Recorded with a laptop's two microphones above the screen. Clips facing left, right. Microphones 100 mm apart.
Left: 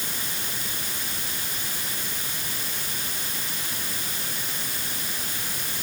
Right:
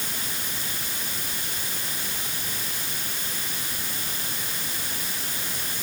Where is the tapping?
I don't hear tapping.